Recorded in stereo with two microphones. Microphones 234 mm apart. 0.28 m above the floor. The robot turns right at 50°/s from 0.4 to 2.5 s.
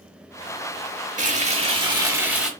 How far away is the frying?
About 0.8 m.